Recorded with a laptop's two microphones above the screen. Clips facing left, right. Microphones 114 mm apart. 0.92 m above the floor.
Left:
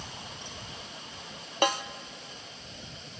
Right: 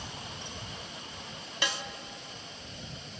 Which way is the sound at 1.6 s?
50° left (ahead or behind).